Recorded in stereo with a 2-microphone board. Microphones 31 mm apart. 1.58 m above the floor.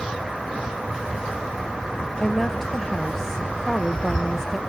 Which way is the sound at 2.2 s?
10° left (ahead or behind).